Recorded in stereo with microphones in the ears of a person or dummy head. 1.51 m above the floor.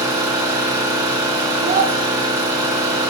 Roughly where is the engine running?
Right.